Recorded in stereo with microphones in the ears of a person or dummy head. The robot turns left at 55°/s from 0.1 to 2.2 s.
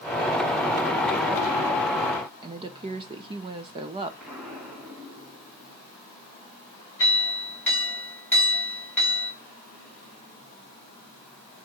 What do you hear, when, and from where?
2.4 s a woman speaking: 25° right (ahead or behind), 0.5 m
4.2 s an explosion: centre (ahead or behind), 2.5 m
7.0 s a clink: 10° left (ahead or behind), 3 m